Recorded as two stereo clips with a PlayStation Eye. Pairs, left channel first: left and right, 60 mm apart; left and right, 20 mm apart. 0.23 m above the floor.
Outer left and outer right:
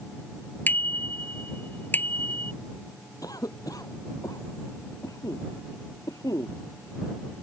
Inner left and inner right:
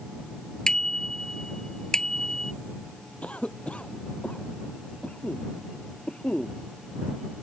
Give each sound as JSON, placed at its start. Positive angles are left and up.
{"t": 0.7, "sound": "a bicycle bell", "side_deg": 30}
{"t": 3.2, "sound": "a cough", "side_deg": 80}